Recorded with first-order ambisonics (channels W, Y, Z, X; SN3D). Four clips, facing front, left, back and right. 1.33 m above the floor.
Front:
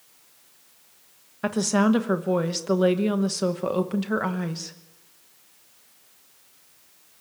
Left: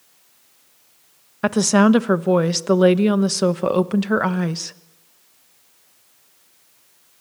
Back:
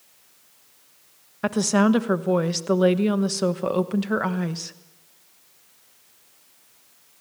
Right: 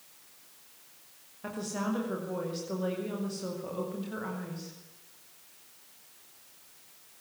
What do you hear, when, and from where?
1.4 s a woman speaking: 95° left, 1.0 m